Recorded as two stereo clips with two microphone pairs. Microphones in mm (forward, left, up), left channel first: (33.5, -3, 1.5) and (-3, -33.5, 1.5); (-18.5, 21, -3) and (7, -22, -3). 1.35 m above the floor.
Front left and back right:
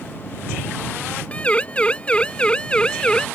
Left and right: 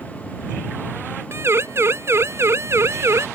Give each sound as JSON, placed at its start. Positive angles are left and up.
{"t": 1.3, "sound": "a siren", "azimuth_deg": -25}